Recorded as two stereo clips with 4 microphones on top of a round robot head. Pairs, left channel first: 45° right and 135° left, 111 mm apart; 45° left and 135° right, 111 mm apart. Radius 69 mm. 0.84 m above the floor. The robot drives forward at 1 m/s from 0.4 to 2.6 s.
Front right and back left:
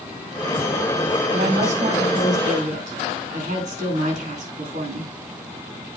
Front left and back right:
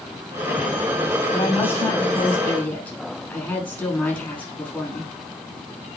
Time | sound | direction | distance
1.3 | a woman speaking | 115° left | 5.5 m